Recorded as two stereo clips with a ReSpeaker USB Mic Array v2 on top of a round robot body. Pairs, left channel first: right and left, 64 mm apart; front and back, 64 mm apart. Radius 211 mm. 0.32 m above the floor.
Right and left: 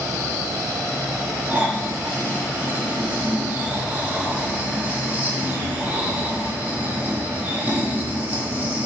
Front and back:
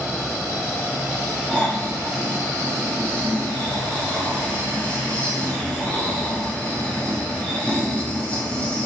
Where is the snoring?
50° left, 1.4 m.